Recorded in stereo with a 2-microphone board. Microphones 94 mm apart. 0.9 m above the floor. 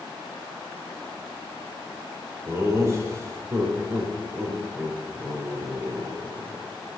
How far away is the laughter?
About 3 m.